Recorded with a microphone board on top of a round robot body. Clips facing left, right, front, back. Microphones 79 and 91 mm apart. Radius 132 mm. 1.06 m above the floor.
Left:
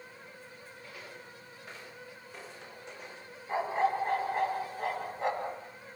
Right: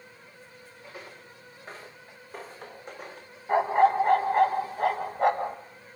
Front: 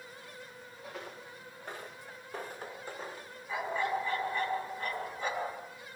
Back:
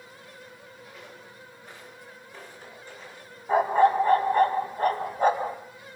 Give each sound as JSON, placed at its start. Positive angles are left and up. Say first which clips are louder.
{"t": 0.8, "sound": "footsteps", "louder": "right 4 dB, front 4 dB", "azimuth_deg": -30, "distance_m": 7.0}
{"t": 3.5, "sound": "a dog barking", "louder": "right 8 dB, back 13 dB", "azimuth_deg": -130, "distance_m": 2.0}